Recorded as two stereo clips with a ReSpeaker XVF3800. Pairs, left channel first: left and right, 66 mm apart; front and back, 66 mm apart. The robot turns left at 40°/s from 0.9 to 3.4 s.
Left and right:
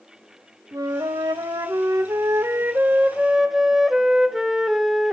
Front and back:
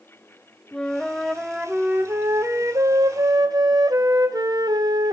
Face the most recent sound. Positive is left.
turn(degrees=-175)